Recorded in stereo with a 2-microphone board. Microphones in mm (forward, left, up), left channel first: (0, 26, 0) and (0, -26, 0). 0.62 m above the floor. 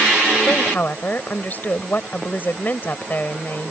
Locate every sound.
0.5 s a woman speaking: 40° left (ahead or behind)